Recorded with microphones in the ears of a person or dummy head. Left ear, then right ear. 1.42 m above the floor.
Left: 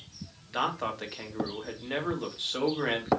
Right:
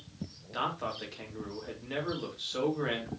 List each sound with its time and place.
0.5 s a man speaking: 20° left (ahead or behind), 2.5 m